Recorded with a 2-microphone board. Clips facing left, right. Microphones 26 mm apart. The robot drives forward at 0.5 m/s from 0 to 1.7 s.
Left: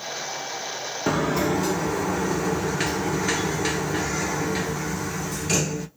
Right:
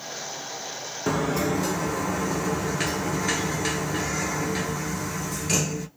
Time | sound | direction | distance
1.1 | a sliding door | 10° left (ahead or behind) | 0.5 m